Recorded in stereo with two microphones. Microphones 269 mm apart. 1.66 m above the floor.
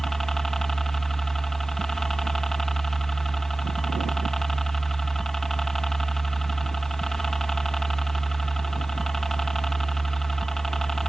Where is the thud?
I don't hear a thud.